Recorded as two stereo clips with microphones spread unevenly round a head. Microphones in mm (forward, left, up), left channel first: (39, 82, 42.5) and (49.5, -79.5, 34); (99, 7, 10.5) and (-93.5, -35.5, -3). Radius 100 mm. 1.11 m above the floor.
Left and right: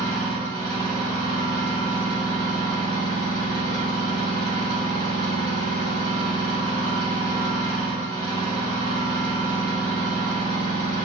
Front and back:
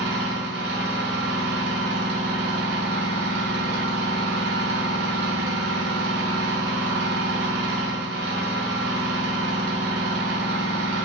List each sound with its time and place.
0.0 s an engine running: 160° left, 0.8 m